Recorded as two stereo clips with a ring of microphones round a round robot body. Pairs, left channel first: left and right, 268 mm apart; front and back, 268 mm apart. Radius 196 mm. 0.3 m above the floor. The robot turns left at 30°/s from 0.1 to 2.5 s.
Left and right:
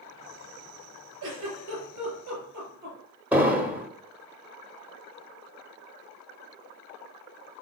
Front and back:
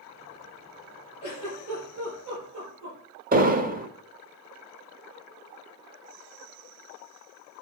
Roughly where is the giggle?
Right.